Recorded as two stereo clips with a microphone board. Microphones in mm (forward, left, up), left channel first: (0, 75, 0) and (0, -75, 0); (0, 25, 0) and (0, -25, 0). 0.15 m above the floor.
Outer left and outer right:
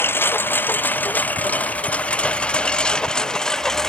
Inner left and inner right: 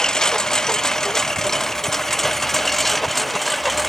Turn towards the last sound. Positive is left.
turn(degrees=5)  # may be behind; listen again after turning